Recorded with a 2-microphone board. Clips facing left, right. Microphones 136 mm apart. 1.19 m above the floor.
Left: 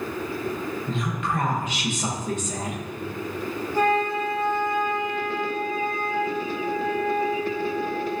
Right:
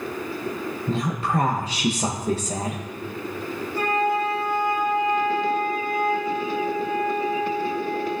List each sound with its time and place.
0.9 s a woman speaking: 35° right (ahead or behind), 0.9 m
3.7 s a flute: 85° left, 3 m